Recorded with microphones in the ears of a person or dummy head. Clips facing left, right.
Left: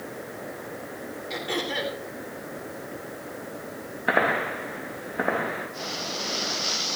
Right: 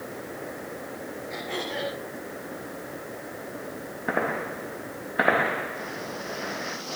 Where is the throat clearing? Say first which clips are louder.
Left 3 dB; 65° left (ahead or behind), 3 m.